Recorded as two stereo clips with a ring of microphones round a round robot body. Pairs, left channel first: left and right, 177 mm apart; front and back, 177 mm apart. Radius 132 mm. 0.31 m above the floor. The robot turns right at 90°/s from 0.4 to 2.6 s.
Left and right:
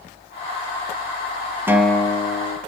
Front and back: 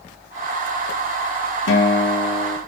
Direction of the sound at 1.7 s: 15° right.